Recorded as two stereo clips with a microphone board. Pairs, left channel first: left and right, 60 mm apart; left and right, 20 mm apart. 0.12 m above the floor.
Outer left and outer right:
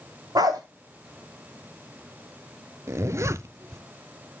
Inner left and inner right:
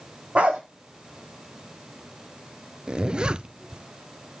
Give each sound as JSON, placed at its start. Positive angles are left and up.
{"t": 0.3, "sound": "a dog barking", "side_deg": -85, "distance_m": 3.0}
{"t": 2.9, "sound": "a zipper", "side_deg": -50, "distance_m": 0.5}